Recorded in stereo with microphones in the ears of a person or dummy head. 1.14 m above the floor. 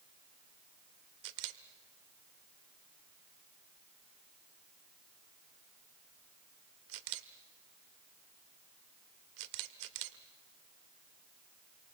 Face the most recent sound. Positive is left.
turn(degrees=-60)  # may be behind; listen again after turning